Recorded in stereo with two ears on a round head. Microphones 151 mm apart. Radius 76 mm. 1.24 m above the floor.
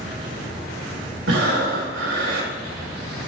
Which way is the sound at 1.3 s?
80° right.